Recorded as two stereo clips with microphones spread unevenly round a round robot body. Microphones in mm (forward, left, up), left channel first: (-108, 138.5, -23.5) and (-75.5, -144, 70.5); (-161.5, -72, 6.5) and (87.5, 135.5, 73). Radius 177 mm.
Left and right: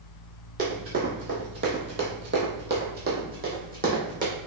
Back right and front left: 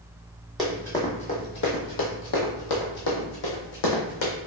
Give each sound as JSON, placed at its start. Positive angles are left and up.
{"t": 0.6, "sound": "running footsteps", "azimuth_deg": -40, "distance_m": 1.1}